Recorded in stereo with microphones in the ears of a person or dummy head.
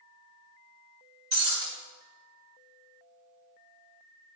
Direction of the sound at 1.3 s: 35° right (ahead or behind).